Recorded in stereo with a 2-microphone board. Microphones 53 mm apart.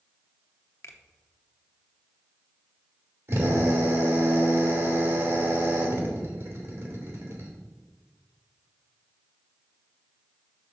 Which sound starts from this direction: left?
A finger snap, at 0.8 s.